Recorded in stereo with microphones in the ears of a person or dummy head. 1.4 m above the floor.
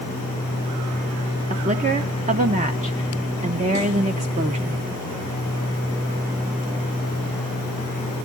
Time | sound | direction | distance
1.5 | a woman speaking | 35° right (ahead or behind) | 0.8 m